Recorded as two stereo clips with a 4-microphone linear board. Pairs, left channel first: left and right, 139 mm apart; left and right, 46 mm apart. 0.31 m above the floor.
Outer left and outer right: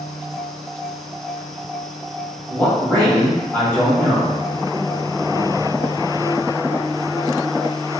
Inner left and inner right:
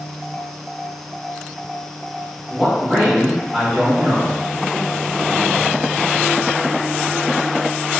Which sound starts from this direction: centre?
A man speaking, at 2.5 s.